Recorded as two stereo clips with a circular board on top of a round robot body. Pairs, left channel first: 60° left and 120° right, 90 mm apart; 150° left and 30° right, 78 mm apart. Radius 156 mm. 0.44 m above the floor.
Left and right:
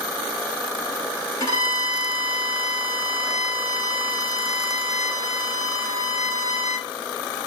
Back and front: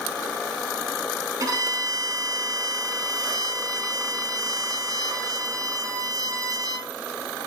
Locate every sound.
1.4 s a violin: 10° left, 1.7 m